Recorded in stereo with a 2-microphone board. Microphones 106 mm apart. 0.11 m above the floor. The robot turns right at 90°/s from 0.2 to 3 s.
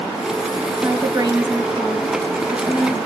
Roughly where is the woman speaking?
Right.